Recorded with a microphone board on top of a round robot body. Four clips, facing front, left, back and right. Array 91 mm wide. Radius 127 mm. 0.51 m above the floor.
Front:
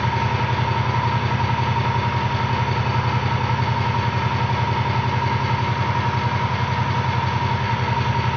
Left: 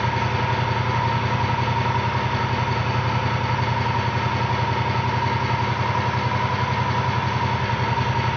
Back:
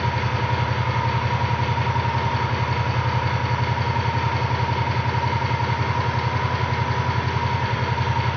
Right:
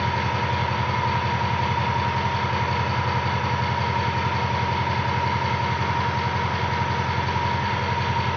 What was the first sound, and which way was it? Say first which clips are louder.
An engine running: left 1 dB, front 2 dB; 25° left.